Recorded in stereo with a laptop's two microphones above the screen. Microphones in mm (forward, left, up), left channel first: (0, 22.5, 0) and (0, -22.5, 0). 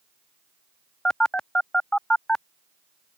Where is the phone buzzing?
20° left (ahead or behind).